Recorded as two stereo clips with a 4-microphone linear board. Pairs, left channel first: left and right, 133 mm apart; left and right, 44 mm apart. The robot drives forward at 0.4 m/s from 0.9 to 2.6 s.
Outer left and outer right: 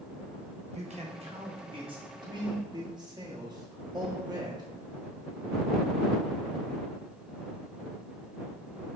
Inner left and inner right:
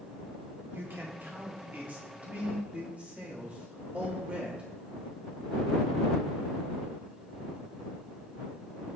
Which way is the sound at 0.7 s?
55° right (ahead or behind).